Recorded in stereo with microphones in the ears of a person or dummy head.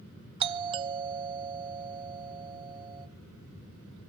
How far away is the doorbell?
About 0.8 m.